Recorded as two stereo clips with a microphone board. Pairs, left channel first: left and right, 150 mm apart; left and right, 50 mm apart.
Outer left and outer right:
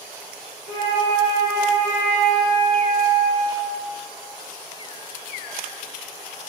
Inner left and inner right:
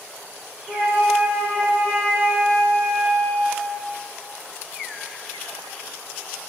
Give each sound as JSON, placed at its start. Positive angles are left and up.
{"t": 0.7, "sound": "a flute", "side_deg": -65, "distance_m": 1.3}